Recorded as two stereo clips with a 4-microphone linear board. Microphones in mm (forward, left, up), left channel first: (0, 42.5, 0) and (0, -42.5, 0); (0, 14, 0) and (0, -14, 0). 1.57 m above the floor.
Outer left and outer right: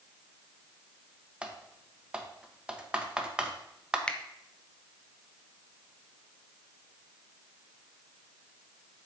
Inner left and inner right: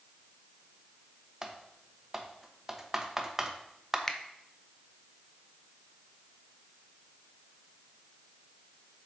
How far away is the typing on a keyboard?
About 0.8 m.